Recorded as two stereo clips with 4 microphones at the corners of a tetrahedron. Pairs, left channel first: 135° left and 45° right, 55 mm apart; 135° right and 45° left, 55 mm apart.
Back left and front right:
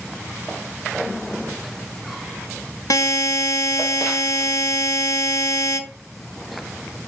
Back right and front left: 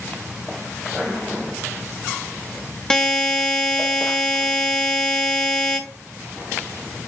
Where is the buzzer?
150° left, 0.6 m.